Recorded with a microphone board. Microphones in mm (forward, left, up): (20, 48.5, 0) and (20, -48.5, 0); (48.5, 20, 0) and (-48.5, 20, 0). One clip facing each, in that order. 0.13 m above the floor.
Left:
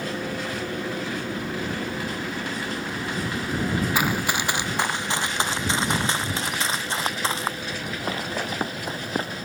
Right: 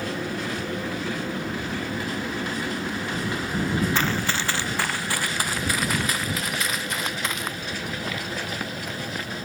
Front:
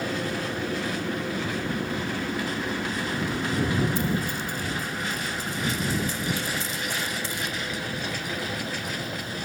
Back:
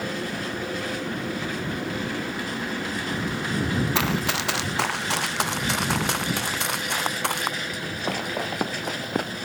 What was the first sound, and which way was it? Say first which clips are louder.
Running footsteps: left 1 dB, back 2 dB; 170° left.